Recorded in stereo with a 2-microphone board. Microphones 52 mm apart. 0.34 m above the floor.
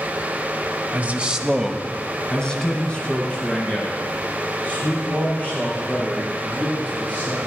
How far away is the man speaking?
About 1.1 m.